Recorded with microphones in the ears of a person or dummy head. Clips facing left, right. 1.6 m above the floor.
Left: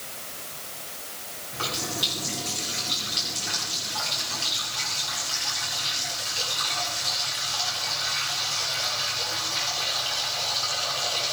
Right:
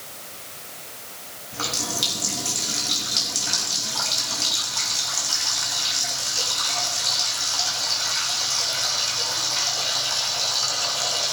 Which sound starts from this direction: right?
A running tap, at 1.5 s.